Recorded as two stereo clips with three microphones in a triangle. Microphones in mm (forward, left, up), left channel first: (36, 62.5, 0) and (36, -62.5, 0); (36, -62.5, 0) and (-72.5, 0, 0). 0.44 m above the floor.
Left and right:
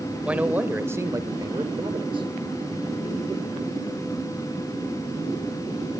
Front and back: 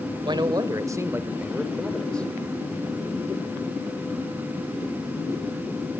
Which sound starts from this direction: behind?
A man speaking, at 0.2 s.